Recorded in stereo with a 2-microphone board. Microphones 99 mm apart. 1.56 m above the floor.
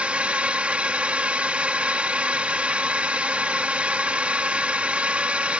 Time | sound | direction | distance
0.0 | a drone | 10° right (ahead or behind) | ?